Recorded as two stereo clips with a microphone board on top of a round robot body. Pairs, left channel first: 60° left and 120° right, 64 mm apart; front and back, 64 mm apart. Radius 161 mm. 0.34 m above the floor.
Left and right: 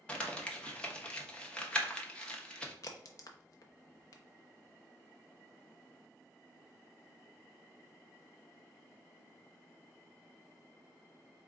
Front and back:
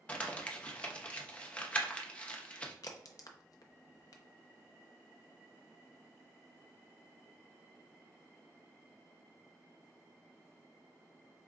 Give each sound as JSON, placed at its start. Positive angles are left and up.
{"t": 0.1, "sound": "crumpling", "azimuth_deg": 20, "distance_m": 1.1}
{"t": 2.8, "sound": "a crack", "azimuth_deg": 25, "distance_m": 0.6}